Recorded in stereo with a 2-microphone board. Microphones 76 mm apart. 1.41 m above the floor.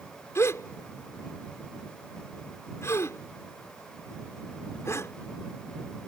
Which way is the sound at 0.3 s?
40° left (ahead or behind).